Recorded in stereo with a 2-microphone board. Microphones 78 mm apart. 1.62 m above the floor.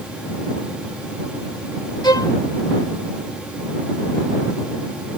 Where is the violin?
70° left (ahead or behind).